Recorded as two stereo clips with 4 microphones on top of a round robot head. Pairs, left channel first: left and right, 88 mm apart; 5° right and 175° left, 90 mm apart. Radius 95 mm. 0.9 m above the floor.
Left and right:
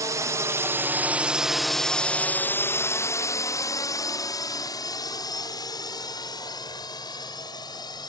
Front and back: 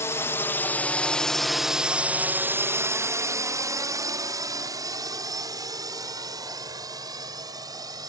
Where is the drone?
55° right; by 8.1 s 130° left.